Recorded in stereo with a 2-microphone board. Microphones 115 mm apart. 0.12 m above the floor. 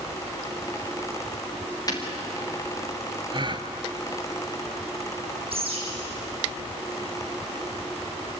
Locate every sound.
1.9 s breaking glass: 35° left (ahead or behind), 4 m
3.3 s a gasp: 45° right (ahead or behind), 0.9 m
5.5 s a bird: 55° right (ahead or behind), 5.5 m